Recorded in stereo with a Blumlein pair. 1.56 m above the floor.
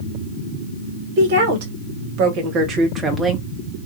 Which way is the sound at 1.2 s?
55° right.